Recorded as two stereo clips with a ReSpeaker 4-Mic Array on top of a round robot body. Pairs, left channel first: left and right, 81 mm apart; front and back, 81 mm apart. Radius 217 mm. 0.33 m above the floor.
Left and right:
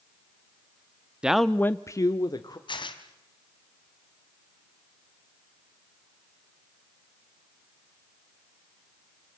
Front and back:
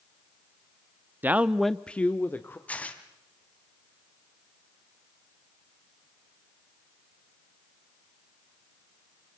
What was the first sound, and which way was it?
A man speaking, 155° right.